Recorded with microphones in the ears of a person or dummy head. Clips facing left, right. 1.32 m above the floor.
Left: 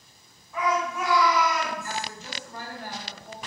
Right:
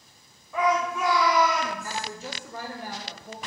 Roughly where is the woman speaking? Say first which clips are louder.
Right 1 dB; right.